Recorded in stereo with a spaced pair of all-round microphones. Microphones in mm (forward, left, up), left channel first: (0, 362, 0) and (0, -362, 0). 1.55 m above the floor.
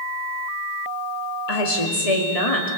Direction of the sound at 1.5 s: 55° left (ahead or behind).